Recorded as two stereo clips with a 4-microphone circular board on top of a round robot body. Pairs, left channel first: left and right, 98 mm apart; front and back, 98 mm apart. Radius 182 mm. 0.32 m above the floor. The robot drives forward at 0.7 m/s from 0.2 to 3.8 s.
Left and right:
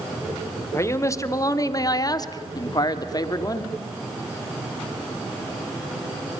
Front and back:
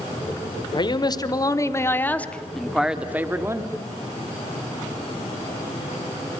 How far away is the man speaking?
About 2.0 m.